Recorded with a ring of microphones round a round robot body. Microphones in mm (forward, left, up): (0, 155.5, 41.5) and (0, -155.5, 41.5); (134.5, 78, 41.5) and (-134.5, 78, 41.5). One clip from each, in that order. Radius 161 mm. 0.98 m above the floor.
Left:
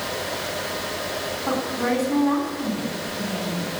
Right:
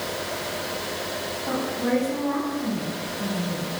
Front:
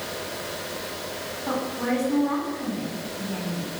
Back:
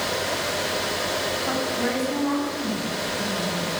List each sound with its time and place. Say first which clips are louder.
1.5 s a woman speaking: left 2 dB, back 3 dB; 100° left, 9 m